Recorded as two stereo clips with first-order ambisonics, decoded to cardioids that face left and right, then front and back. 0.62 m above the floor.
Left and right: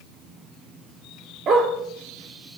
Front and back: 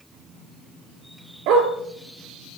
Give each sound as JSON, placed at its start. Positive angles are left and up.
{"t": 1.5, "sound": "a dog barking", "azimuth_deg": -150, "distance_m": 3.0}